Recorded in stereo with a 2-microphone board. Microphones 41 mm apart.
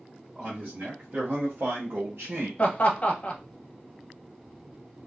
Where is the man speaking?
25° right (ahead or behind), 1.6 m; by 2.5 s 65° right (ahead or behind), 1.0 m.